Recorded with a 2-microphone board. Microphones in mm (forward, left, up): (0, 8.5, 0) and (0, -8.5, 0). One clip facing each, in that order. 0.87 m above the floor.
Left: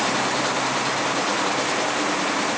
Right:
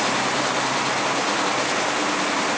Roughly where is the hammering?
I don't hear hammering.